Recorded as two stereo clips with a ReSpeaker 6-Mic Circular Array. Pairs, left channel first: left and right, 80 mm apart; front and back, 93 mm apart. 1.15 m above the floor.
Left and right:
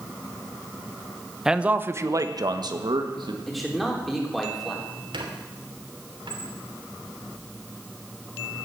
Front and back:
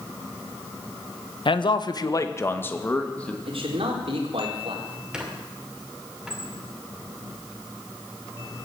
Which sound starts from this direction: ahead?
A man speaking, at 1.4 s.